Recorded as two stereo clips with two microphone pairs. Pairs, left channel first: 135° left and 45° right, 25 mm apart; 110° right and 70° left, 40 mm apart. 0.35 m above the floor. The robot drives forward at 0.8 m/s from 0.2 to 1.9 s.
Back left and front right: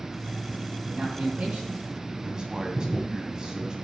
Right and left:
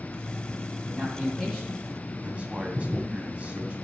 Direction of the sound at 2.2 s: 15° left.